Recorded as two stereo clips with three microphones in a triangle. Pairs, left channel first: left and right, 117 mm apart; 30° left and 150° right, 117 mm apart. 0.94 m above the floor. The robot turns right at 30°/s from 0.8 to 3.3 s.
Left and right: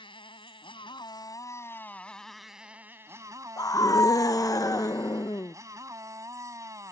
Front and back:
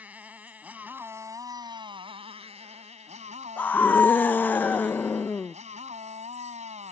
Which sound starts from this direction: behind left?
A motorcycle, at 0.0 s.